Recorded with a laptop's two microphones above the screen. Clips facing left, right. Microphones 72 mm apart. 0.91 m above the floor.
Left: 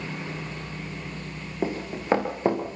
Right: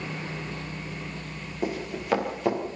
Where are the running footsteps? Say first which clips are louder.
Left 2 dB; 30° left (ahead or behind), 4 m.